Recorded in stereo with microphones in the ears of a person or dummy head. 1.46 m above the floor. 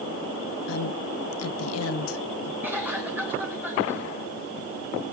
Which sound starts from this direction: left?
A woman speaking, at 0.7 s.